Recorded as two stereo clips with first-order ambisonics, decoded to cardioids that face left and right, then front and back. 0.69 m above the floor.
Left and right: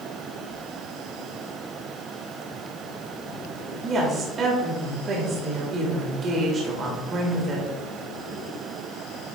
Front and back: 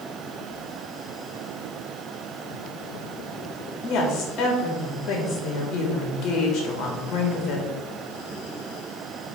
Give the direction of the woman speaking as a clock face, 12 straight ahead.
1 o'clock.